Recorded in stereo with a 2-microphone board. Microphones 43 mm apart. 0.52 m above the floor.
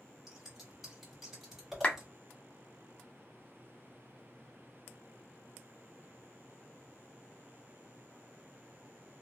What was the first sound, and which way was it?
Scissors, 10° right (ahead or behind).